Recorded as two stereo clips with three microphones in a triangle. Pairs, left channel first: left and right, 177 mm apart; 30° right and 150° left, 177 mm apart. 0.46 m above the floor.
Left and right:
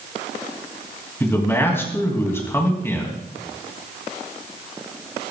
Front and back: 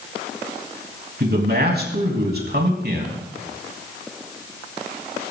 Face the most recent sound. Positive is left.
turn(degrees=165)